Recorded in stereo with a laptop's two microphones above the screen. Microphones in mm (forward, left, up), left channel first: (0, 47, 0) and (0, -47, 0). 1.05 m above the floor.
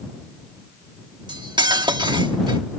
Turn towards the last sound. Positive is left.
turn(degrees=-55)  # may be behind; listen again after turning